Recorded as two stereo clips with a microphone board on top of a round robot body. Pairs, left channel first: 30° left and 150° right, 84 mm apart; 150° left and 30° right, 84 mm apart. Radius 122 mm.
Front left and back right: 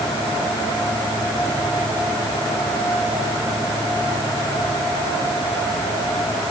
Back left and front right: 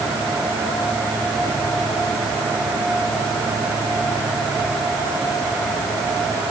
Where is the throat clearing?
I don't hear throat clearing.